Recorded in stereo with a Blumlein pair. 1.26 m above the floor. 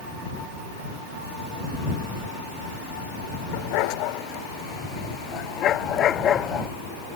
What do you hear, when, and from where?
3.5 s a dog barking: 45° left; by 6.7 s 25° left